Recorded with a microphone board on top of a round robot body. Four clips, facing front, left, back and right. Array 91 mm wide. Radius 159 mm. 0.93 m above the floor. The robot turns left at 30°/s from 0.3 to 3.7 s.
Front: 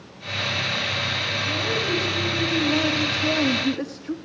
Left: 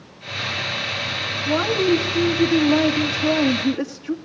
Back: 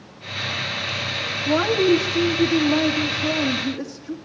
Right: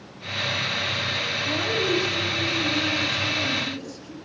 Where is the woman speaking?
140° left, 2 m; by 4.2 s 75° left, 2 m.